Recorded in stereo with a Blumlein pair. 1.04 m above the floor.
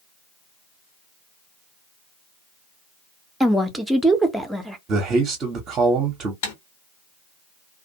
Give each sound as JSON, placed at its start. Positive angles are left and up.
{"t": 3.4, "sound": "a woman speaking", "azimuth_deg": -5, "distance_m": 0.7}
{"t": 4.9, "sound": "a man speaking", "azimuth_deg": -25, "distance_m": 0.8}
{"t": 6.4, "sound": "typing on a keyboard", "azimuth_deg": 55, "distance_m": 1.1}